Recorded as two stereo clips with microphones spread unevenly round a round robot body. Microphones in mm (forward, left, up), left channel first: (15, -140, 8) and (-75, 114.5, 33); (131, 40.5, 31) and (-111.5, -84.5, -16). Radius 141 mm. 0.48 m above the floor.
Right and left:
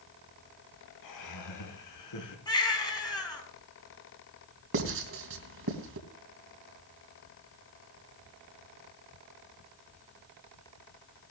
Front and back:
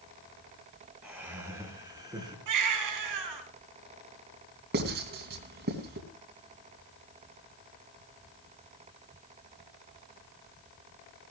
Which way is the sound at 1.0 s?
65° right.